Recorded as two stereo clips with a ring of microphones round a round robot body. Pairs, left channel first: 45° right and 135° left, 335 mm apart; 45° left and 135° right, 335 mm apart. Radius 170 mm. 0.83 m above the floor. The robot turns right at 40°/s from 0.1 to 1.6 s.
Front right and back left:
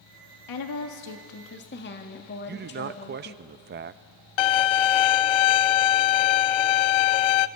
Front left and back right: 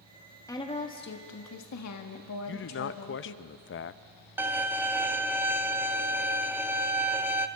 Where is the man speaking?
85° left, 0.6 m.